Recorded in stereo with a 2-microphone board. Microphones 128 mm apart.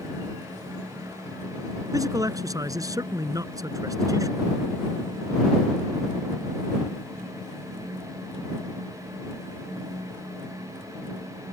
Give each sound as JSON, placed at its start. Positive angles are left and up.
{"t": 1.9, "sound": "a man speaking", "side_deg": -25}